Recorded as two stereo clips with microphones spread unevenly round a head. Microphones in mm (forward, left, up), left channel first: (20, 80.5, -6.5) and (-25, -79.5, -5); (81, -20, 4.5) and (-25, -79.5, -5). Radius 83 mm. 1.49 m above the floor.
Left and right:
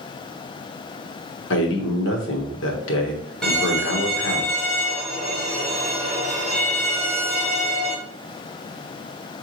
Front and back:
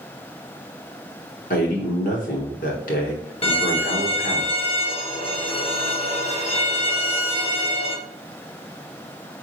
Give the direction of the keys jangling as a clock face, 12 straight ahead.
No keys jangling in this recording.